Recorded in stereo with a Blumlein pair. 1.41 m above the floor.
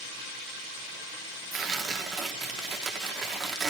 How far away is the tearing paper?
About 0.8 m.